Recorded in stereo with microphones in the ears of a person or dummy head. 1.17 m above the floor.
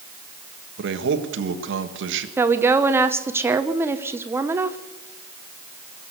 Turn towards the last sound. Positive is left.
turn(degrees=-10)  # may be behind; listen again after turning